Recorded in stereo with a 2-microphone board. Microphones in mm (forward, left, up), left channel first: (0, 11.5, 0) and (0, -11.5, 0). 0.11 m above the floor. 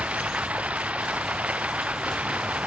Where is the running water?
65° right (ahead or behind).